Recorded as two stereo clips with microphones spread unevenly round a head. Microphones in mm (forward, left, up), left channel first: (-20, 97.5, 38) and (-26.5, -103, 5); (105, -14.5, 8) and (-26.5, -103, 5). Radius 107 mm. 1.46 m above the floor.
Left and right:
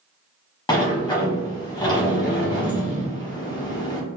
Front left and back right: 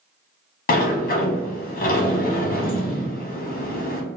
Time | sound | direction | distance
0.7 | a sliding door | 25° left | 0.9 m